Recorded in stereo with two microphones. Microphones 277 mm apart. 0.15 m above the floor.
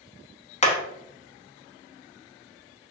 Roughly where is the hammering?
Left.